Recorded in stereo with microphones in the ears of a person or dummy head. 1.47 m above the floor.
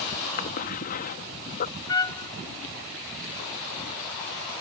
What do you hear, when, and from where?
0.4 s a cough: 50° left (ahead or behind)
1.9 s a trumpet: 25° left (ahead or behind)